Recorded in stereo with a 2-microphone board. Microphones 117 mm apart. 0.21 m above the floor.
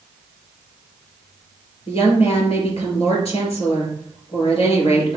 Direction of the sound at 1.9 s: 60° left (ahead or behind).